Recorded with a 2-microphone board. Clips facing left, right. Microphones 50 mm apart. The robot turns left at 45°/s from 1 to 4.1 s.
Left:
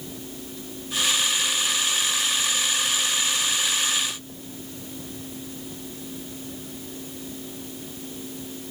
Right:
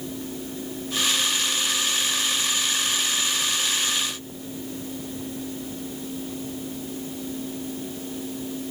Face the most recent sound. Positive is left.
No sound to turn to.